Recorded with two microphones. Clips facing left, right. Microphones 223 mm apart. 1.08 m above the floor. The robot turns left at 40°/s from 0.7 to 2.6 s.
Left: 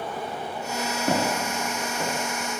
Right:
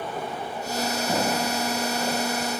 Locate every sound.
1.1 s footsteps: 65° left (ahead or behind), 4.5 m; by 2.1 s 75° left (ahead or behind), 5.5 m